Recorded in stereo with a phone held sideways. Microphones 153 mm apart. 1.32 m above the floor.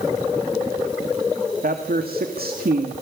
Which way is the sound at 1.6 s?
80° right.